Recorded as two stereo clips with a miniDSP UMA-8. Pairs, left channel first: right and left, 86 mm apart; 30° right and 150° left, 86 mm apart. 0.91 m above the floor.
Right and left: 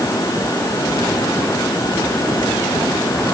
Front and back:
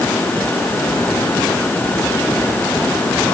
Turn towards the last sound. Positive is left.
No sound to turn to.